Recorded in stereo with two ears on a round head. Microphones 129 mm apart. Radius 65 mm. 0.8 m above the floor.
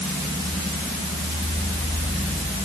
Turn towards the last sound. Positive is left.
No sound to turn to.